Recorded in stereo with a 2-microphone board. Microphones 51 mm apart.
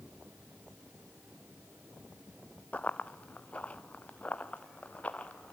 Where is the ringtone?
I don't hear a ringtone.